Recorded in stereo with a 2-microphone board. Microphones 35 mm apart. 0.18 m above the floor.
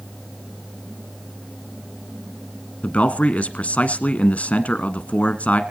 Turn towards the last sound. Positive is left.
turn(degrees=40)  # may be behind; listen again after turning